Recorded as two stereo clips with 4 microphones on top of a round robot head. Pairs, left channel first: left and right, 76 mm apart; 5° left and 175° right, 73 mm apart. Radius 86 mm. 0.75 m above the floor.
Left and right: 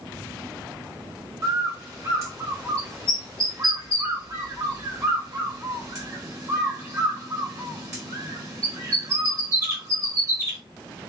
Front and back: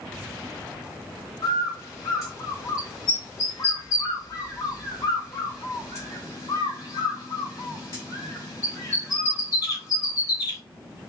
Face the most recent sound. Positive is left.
turn(degrees=-45)